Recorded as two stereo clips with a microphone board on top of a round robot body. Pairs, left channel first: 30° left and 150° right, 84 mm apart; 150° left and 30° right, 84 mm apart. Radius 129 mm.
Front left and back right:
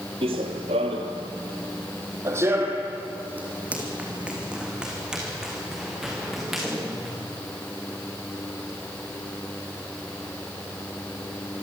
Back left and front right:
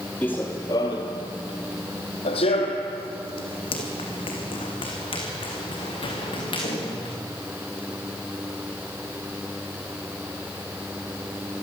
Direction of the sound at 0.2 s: 135° right.